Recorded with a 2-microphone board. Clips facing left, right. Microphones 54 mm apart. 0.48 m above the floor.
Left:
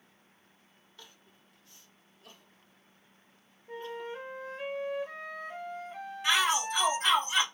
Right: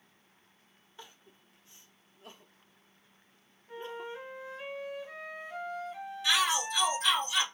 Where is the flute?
45° left (ahead or behind), 1.0 m.